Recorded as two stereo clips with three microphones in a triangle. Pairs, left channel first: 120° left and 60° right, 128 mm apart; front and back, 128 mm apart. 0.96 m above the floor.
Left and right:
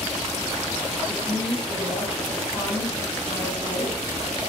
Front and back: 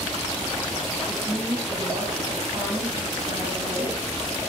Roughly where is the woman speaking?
Behind.